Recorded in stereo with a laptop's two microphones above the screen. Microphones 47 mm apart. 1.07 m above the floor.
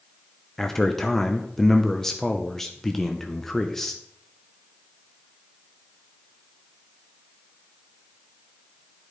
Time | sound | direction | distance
0.6 | a man speaking | 5° left (ahead or behind) | 0.7 m